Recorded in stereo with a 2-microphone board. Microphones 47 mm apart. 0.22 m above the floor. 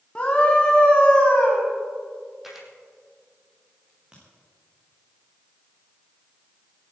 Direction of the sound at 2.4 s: 5° right (ahead or behind).